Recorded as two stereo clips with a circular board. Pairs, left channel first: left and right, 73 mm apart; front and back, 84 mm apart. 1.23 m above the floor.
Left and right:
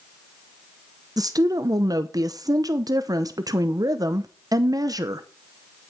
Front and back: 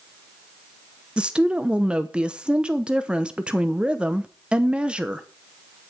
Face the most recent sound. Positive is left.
turn(degrees=-105)